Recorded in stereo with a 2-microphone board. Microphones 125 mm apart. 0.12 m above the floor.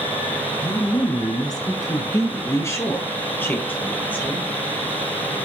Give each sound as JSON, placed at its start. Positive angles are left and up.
{"t": 0.6, "sound": "a woman speaking", "side_deg": 35, "distance_m": 1.3}